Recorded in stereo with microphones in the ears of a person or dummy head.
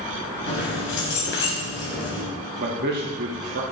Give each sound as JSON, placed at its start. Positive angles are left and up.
{"t": 0.5, "sound": "keys jangling", "side_deg": 65, "distance_m": 1.3}
{"t": 2.6, "sound": "a man speaking", "side_deg": -50, "distance_m": 0.6}